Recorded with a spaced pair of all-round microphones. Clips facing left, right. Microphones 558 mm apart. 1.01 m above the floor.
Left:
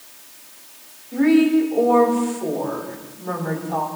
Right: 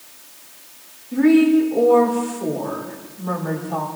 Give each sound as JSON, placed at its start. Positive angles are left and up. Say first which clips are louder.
{"t": 1.1, "sound": "a woman speaking", "louder": "right 2 dB", "side_deg": -50, "distance_m": 3.0}